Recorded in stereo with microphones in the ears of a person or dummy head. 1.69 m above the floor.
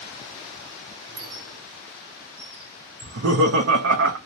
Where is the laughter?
85° right, 0.5 m.